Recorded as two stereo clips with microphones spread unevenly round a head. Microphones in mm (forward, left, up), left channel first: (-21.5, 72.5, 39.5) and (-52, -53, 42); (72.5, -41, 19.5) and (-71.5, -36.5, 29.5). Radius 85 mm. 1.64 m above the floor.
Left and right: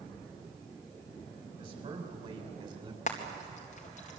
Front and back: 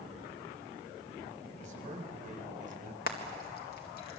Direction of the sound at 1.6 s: 145° right.